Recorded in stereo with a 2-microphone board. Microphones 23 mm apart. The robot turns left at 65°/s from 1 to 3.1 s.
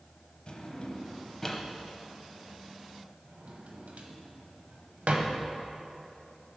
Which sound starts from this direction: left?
A drawer, at 0.5 s.